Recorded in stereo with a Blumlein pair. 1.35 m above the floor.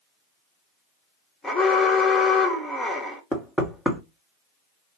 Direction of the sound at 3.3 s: 10° right.